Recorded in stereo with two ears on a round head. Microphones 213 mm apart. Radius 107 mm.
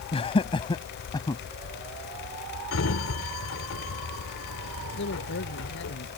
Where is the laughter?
25° left (ahead or behind); by 1.4 s 15° left (ahead or behind).